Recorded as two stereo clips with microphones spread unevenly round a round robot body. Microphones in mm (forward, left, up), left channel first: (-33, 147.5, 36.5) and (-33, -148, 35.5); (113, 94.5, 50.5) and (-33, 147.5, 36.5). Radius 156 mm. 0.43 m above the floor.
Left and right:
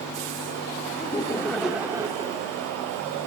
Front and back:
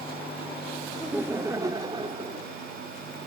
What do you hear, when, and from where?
1.0 s laughter: 105° left, 0.9 m; by 2.6 s 155° right, 1.3 m